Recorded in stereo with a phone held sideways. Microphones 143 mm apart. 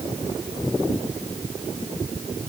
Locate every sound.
Only background noise.